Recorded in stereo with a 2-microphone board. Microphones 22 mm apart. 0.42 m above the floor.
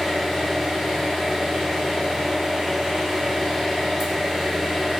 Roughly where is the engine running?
Centre.